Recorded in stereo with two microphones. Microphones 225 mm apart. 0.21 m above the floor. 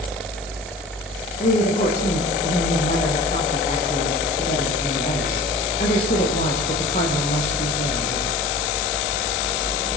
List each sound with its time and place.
1.4 s a woman speaking: 35° left (ahead or behind), 8 m